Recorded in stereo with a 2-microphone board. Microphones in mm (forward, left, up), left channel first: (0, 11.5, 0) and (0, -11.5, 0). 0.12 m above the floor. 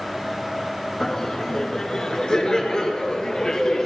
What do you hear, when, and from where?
1.0 s laughter: 20° left (ahead or behind), 1.2 m; by 3.9 s 30° left (ahead or behind), 2 m